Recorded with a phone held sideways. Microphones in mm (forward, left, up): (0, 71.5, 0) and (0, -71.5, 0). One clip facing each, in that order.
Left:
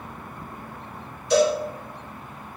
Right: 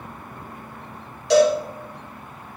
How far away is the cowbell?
About 2.5 m.